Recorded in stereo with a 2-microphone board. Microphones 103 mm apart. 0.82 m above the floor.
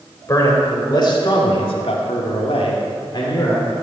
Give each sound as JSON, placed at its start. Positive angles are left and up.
{"t": 0.3, "sound": "a man speaking", "side_deg": 35, "distance_m": 3.5}